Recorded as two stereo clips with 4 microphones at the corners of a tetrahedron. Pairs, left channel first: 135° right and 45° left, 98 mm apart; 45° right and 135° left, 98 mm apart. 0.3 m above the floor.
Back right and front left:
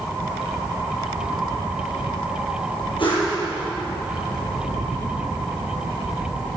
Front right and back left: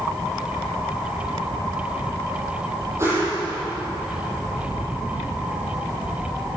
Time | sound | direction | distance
3.0 | a whoosh | 165° right | 10 m